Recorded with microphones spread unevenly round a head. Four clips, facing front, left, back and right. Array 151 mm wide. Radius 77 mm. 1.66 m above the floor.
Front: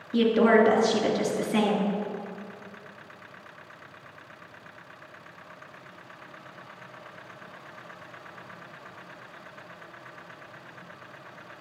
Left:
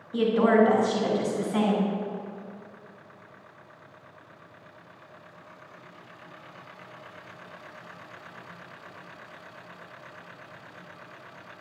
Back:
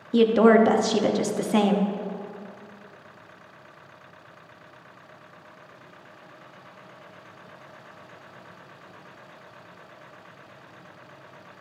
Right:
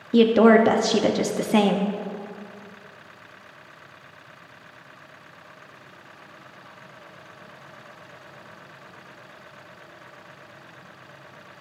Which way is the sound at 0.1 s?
115° right.